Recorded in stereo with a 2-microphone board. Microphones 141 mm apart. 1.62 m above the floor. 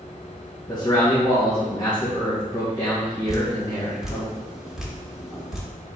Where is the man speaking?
30° left (ahead or behind), 1.4 m.